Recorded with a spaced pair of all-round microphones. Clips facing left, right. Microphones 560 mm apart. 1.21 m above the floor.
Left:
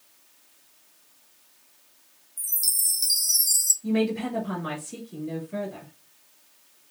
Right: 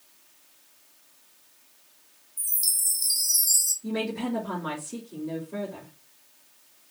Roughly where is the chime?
Centre.